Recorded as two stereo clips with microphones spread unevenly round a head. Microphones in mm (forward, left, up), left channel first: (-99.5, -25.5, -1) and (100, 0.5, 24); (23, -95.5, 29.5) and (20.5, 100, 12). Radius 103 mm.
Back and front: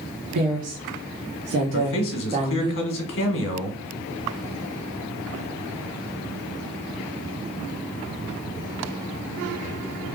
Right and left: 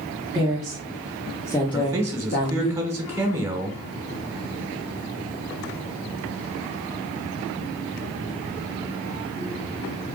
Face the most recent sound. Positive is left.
turn(degrees=165)